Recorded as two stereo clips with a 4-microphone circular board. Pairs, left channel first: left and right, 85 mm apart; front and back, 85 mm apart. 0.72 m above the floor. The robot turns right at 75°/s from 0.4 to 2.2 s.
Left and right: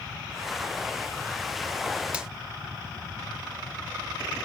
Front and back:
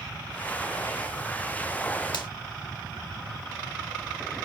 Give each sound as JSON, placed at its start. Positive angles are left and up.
{"t": 2.1, "sound": "a finger snap", "azimuth_deg": -15, "distance_m": 1.2}